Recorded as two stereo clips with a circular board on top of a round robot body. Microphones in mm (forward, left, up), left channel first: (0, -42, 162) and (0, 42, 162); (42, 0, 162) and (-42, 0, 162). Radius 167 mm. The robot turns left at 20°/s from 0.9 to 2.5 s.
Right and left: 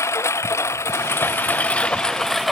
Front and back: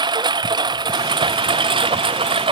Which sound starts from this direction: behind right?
A lawn mower, at 0.0 s.